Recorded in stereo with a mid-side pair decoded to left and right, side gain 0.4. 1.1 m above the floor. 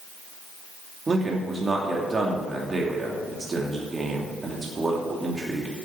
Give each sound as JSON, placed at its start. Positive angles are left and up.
{"t": 1.1, "sound": "a man speaking", "azimuth_deg": -30, "distance_m": 2.5}